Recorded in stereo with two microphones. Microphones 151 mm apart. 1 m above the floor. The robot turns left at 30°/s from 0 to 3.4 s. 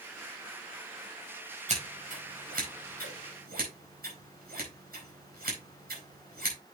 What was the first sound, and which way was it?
Scissors, 50° right (ahead or behind).